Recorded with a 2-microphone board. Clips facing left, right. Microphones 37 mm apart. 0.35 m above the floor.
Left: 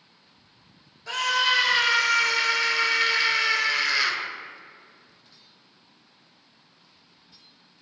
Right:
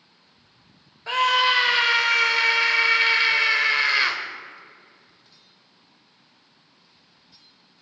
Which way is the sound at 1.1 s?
30° right (ahead or behind).